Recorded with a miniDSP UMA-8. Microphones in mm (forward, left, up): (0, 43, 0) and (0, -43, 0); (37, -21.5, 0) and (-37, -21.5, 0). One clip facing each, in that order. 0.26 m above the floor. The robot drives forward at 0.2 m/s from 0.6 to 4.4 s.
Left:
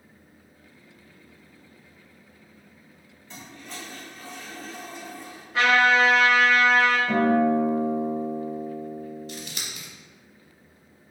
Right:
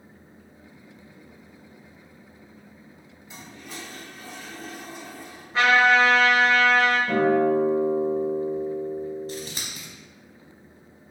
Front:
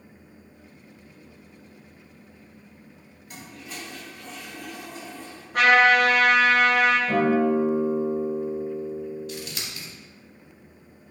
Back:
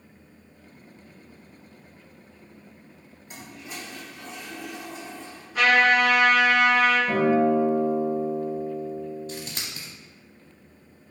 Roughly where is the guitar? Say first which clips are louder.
Right 1 dB, even; behind right.